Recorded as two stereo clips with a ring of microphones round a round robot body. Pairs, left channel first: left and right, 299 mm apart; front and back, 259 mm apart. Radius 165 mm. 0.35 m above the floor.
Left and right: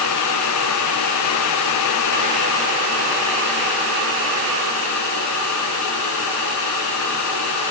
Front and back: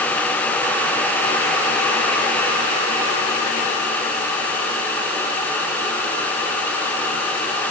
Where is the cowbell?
No cowbell in this recording.